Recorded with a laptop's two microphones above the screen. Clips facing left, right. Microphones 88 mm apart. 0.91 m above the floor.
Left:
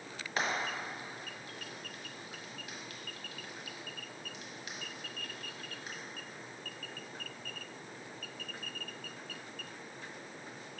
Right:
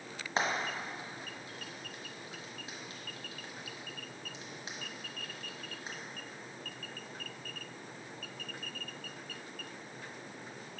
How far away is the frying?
About 1.4 m.